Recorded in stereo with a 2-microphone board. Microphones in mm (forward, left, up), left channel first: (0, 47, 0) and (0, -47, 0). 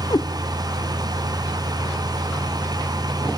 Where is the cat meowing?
50° left (ahead or behind), 0.5 m.